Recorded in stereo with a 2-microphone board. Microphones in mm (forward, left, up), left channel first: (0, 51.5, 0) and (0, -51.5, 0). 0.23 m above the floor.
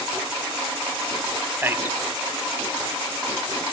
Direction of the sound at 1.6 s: 20° right (ahead or behind).